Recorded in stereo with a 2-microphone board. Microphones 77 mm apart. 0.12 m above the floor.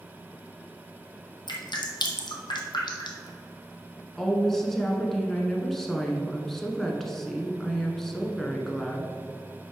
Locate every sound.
1.5 s dripping: 75° left (ahead or behind), 1.1 m
4.2 s a woman speaking: 5° left (ahead or behind), 1.0 m